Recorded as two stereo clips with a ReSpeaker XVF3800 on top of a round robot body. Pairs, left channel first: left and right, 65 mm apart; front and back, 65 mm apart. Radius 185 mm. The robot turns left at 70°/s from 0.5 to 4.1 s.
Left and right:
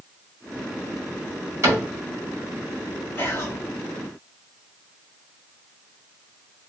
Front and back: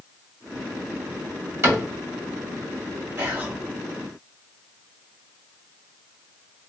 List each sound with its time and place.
1.6 s a cupboard door: 130° right, 1.9 m; by 1.9 s 150° right, 1.9 m
3.2 s whispering: 135° left, 1.9 m; by 3.5 s 110° left, 1.9 m